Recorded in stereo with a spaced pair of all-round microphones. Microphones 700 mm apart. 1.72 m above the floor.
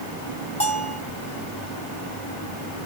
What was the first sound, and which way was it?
A bell, 10° left (ahead or behind).